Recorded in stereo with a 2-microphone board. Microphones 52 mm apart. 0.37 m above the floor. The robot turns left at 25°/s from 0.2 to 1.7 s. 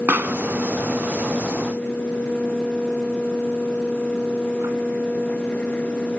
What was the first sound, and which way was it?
A pop, 40° right (ahead or behind).